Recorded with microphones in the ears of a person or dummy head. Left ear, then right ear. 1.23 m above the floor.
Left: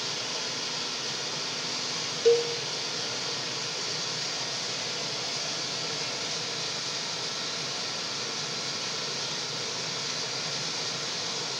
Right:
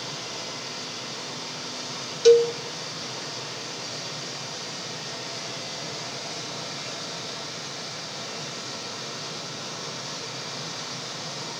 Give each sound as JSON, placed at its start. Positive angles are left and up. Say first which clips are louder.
{"t": 0.0, "sound": "running water", "louder": "left 2 dB", "side_deg": 75, "distance_m": 3.0}
{"t": 2.2, "sound": "a cowbell", "louder": "right 7 dB", "side_deg": -20, "distance_m": 0.5}